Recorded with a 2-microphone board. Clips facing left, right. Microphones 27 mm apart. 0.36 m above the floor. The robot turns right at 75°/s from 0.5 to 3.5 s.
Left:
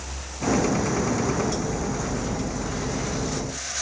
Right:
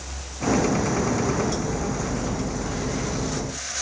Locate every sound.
Only background noise.